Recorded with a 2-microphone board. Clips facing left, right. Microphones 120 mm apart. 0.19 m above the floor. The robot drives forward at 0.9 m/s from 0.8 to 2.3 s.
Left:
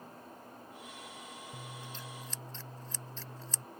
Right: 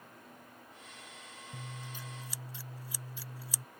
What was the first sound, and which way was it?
Scissors, 10° right (ahead or behind).